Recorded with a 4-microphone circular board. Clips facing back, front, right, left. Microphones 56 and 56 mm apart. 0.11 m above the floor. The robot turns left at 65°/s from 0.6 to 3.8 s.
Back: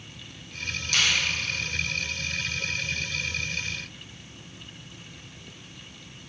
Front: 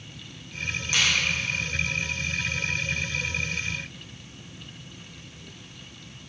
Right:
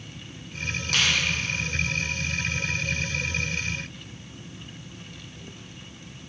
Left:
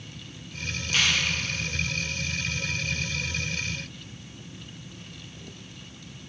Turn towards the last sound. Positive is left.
turn(degrees=105)